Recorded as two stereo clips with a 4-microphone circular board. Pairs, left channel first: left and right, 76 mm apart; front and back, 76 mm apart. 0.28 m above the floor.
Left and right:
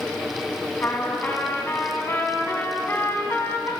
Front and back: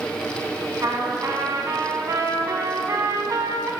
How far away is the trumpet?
About 1.1 m.